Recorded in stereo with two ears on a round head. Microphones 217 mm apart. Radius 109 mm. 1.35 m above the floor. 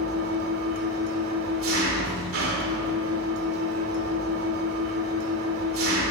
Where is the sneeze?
No sneeze in this recording.